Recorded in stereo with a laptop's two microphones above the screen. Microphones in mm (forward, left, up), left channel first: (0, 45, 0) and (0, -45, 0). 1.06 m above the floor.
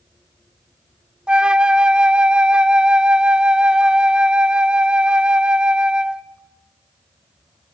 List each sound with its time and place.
1.3 s a flute: 10° right (ahead or behind), 0.9 m